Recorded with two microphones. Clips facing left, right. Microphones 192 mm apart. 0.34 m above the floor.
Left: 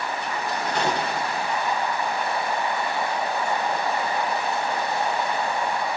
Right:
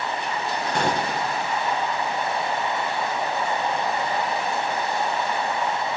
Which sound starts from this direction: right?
A gunshot, at 0.8 s.